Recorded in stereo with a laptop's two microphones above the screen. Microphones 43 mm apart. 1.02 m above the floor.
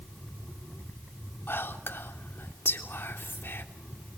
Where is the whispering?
65° left (ahead or behind), 3 m.